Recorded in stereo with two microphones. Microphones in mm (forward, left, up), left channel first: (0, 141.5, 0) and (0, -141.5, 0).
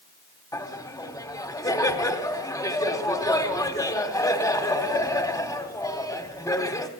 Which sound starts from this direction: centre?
Laughter, at 0.5 s.